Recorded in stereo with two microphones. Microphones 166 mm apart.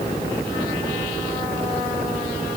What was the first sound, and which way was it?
Only background noise.